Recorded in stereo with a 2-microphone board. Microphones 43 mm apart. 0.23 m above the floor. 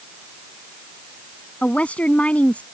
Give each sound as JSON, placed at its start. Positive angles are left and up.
{"t": 1.6, "sound": "a woman speaking", "side_deg": 30}